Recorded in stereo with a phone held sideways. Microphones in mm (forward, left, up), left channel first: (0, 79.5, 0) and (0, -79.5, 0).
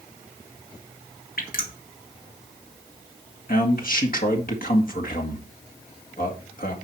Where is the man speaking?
60° left (ahead or behind), 2.0 m.